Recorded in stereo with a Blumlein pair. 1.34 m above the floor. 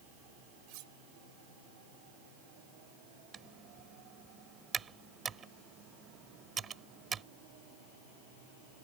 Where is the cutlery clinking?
45° right.